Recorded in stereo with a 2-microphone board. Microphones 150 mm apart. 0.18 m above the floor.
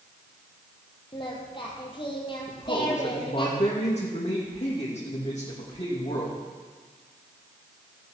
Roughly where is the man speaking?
Left.